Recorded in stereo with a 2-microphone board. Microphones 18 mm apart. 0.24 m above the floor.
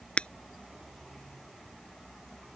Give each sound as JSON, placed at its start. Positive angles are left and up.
{"t": 0.2, "sound": "breaking glass", "side_deg": 65}